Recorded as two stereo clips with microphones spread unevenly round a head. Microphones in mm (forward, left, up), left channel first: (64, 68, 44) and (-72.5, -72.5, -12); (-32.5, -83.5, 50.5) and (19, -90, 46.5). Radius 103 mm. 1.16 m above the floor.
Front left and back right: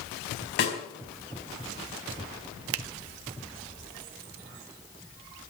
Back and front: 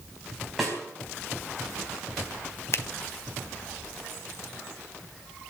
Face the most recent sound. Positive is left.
turn(degrees=-150)